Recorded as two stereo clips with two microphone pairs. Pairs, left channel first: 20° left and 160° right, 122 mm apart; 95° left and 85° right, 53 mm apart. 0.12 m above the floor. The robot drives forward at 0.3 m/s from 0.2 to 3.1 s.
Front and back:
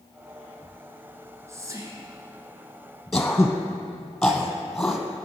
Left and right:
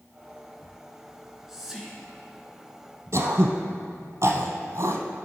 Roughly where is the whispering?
Behind right.